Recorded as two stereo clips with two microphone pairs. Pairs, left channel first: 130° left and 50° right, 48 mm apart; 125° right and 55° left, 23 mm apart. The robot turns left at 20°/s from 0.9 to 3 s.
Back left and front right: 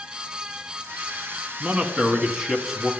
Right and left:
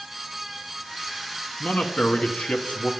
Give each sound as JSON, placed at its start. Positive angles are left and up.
{"t": 1.6, "sound": "a man speaking", "azimuth_deg": -110, "distance_m": 1.2}